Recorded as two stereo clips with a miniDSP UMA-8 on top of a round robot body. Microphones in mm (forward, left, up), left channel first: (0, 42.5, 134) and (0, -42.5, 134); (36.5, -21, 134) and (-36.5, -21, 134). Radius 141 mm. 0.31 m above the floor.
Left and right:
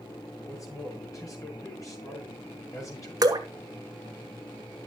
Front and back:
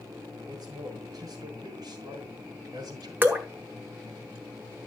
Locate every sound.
0.5 s a man speaking: 145° left, 4.5 m
3.2 s dripping: 120° right, 1.8 m